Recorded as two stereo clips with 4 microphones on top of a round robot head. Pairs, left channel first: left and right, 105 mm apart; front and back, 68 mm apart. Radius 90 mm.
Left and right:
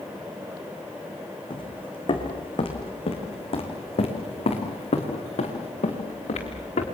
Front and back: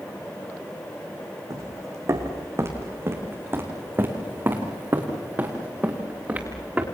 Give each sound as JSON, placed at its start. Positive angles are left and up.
{"t": 1.5, "sound": "footsteps", "azimuth_deg": 135, "distance_m": 4.0}